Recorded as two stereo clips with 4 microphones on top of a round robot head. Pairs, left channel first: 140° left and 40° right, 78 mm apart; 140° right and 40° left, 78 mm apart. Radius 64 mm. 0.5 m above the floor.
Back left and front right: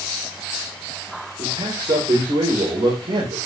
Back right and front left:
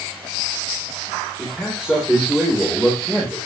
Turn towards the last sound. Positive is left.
turn(degrees=-40)